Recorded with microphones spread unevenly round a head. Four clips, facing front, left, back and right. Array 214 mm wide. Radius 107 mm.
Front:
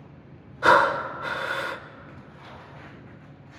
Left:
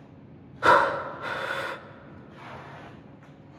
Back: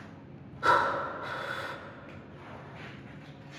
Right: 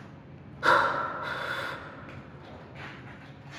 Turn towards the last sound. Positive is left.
turn(degrees=55)